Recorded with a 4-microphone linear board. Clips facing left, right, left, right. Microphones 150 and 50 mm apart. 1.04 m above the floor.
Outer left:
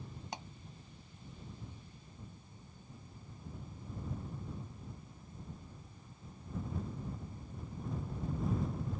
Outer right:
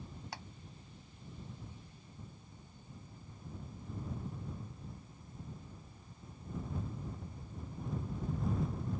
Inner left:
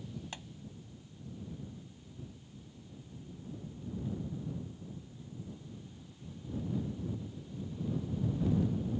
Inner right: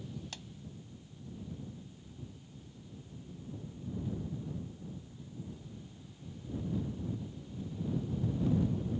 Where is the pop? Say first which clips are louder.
Outer left 4 dB, inner left 2 dB; 20° left (ahead or behind).